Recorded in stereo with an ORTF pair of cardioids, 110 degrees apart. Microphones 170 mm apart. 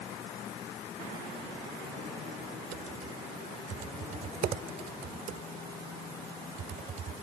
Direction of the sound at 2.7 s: 50° right.